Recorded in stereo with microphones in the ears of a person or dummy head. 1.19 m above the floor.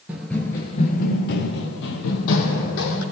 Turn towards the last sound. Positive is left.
turn(degrees=70)  # may be behind; listen again after turning